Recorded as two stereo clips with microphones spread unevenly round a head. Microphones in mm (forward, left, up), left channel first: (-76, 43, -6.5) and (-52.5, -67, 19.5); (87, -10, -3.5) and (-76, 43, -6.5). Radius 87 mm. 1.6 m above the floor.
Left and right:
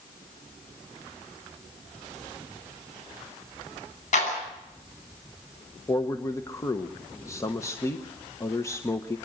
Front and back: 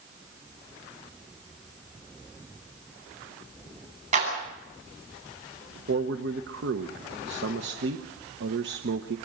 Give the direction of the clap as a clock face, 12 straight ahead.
8 o'clock.